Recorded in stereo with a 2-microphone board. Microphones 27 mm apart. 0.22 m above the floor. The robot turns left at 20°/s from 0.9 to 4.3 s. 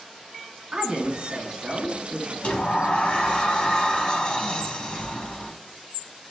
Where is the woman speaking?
35° right (ahead or behind), 1.5 m; by 2.3 s 10° right (ahead or behind), 1.5 m.